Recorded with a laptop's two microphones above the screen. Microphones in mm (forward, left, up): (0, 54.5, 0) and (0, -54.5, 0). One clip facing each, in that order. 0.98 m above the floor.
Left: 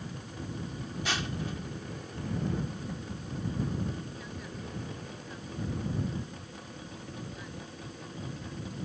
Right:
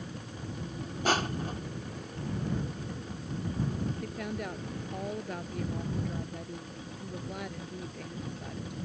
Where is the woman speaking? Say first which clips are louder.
Right 6 dB; 65° right (ahead or behind).